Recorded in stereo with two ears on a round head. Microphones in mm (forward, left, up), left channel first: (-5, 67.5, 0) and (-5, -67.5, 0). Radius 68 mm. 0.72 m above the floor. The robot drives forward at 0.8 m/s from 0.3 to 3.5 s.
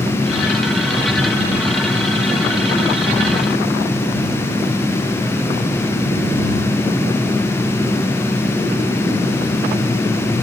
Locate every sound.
Only background noise.